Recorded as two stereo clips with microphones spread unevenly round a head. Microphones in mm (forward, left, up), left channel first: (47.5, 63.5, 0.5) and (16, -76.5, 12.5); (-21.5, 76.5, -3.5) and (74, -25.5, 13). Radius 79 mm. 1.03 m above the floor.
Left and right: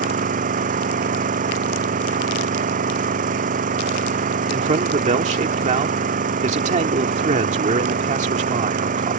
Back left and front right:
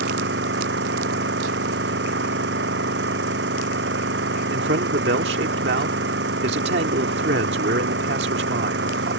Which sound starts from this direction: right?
An engine running, at 0.0 s.